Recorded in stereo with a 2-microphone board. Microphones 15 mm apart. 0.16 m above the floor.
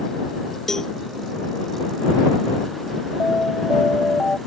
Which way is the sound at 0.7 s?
25° left (ahead or behind).